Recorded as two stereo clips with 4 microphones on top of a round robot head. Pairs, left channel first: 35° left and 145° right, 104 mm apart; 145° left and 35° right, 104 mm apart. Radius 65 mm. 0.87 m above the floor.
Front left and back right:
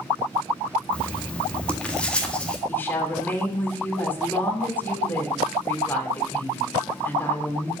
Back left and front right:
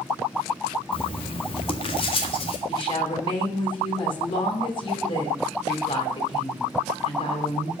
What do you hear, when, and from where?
0.9 s writing: 115° left, 1.7 m
2.7 s a woman speaking: 105° left, 3 m